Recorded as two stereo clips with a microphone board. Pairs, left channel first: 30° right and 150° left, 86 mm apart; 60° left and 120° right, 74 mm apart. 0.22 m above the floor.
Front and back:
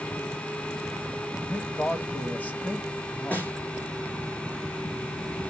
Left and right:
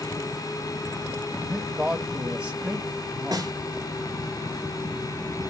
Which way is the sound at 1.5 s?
60° right.